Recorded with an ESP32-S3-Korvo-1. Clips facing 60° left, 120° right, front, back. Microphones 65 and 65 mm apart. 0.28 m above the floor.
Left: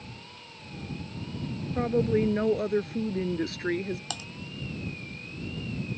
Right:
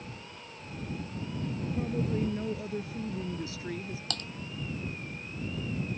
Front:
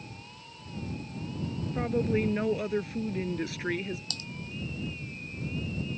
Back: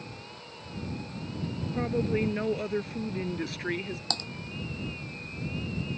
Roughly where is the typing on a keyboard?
Behind left.